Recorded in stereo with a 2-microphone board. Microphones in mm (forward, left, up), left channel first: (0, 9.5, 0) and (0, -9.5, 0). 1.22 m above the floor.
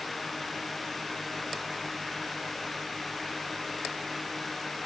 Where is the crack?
I don't hear a crack.